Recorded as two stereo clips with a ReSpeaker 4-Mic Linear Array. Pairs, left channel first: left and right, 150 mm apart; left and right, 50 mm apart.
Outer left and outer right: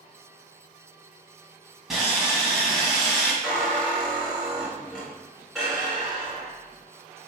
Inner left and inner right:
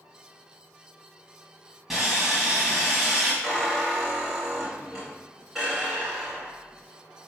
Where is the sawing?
Centre (ahead or behind), 1.7 m.